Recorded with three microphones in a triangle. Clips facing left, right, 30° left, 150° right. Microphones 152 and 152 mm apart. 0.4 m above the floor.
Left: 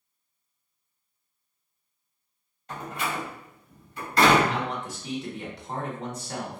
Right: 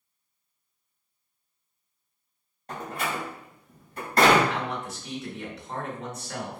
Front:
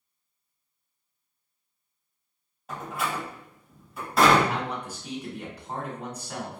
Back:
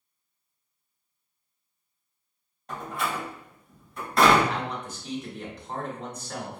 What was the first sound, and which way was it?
A door slam, 55° right.